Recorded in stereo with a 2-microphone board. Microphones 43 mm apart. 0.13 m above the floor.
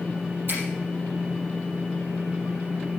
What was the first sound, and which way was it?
A finger snap, 55° right (ahead or behind).